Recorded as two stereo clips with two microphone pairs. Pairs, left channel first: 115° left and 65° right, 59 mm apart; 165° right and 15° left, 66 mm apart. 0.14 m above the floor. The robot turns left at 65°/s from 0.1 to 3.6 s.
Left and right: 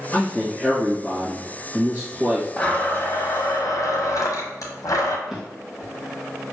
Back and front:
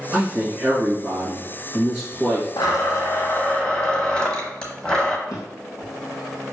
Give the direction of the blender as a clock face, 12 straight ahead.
6 o'clock.